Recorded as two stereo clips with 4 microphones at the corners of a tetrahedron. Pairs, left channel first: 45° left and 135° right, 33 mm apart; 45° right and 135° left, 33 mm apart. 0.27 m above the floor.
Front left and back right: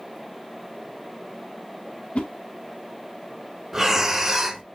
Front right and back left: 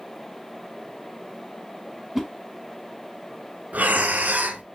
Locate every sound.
2.1 s a whoosh: 50° left, 1.3 m
3.7 s breathing: 155° left, 0.8 m